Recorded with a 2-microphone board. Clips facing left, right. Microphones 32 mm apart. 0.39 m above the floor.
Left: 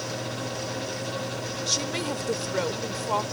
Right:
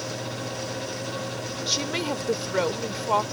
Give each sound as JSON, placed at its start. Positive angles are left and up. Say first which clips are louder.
{"t": 1.7, "sound": "a woman speaking", "louder": "right 2 dB", "side_deg": -20}